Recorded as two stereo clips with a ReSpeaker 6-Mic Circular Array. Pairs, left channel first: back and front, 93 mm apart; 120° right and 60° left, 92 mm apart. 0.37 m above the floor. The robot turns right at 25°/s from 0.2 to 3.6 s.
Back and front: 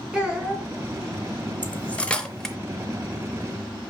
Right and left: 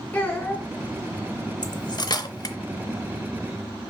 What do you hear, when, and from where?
0.1 s a child speaking: 70° right, 1.0 m; by 0.7 s 60° right, 1.0 m
1.6 s cutlery clinking: 115° right, 0.5 m; by 2.5 s 95° right, 0.5 m